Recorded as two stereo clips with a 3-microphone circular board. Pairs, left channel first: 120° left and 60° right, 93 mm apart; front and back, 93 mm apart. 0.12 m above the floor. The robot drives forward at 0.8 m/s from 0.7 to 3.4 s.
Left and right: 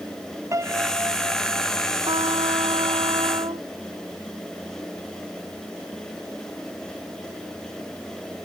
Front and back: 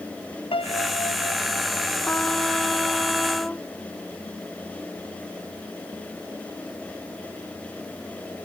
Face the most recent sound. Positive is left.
turn(degrees=-80)